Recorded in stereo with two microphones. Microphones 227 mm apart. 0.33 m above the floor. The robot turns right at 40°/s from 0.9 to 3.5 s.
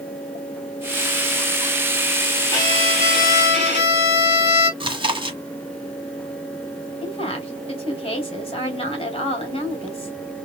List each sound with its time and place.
2.5 s a violin: 15° left, 3.5 m; by 4.7 s 55° left, 3.5 m
4.8 s chewing: 20° right (ahead or behind), 1.1 m
7.0 s a woman speaking: 25° left (ahead or behind), 2 m